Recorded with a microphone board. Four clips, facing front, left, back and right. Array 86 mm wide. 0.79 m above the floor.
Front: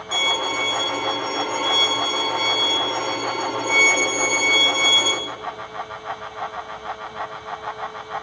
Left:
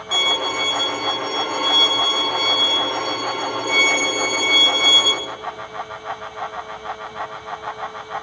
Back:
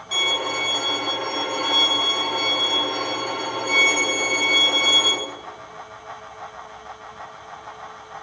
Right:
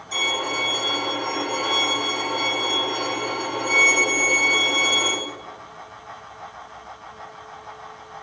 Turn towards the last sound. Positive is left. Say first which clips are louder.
# left 3 dB, front 2 dB
turn(degrees=90)